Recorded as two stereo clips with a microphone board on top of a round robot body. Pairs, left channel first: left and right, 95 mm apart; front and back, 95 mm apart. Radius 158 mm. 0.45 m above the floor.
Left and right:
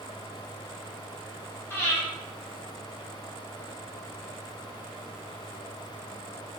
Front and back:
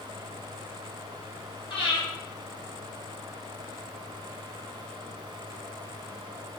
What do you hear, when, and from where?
1.7 s breathing: 20° left, 1.3 m